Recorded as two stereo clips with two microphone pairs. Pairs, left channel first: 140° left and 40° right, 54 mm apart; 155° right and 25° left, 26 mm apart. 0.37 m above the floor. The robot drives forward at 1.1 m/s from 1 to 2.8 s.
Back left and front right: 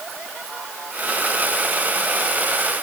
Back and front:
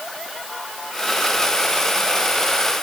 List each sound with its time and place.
Only background noise.